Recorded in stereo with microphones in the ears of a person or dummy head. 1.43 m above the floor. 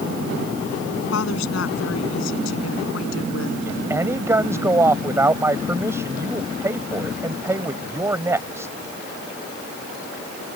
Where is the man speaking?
15° right (ahead or behind).